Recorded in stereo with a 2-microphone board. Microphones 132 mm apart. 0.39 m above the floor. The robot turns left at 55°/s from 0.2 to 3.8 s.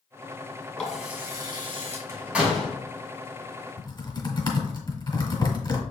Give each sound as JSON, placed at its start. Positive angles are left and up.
{"t": 0.8, "sound": "a running tap", "azimuth_deg": 5, "distance_m": 1.9}
{"t": 2.1, "sound": "a door slam", "side_deg": -20, "distance_m": 2.5}
{"t": 3.8, "sound": "typing on a keyboard", "side_deg": 35, "distance_m": 1.6}